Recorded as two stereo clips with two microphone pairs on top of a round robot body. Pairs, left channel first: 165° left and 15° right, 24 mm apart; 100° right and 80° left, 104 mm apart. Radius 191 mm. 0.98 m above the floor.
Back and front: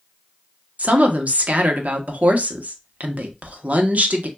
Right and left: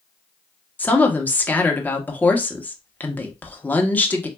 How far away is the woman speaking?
About 1.1 m.